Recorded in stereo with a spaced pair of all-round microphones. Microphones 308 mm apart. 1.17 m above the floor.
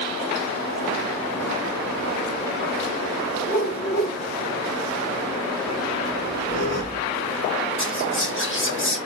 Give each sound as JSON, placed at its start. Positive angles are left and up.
{"t": 3.5, "sound": "a whoosh", "side_deg": 75, "distance_m": 3.0}
{"t": 6.1, "sound": "a squeak", "side_deg": 55, "distance_m": 1.8}
{"t": 7.8, "sound": "whispering", "side_deg": 40, "distance_m": 1.0}